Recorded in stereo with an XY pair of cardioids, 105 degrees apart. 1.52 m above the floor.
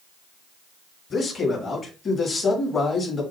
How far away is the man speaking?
About 5.5 m.